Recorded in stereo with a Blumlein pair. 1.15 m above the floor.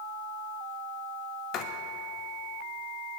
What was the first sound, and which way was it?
Writing, 35° left.